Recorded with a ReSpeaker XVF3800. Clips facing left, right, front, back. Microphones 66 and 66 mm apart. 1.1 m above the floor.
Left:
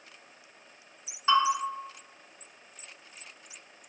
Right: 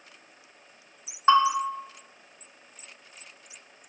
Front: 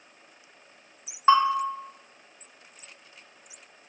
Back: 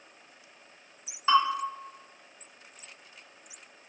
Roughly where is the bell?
Ahead right.